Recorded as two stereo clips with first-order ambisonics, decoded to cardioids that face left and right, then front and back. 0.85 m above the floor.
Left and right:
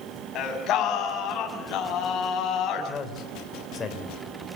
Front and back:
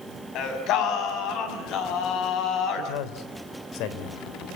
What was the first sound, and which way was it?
Singing, 40° left.